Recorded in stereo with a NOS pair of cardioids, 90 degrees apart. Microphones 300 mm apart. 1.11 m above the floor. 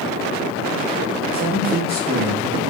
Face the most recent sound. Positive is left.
turn(degrees=-30)